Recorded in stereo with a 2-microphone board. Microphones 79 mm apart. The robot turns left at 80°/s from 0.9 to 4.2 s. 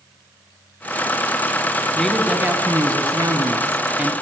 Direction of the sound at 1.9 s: 10° left.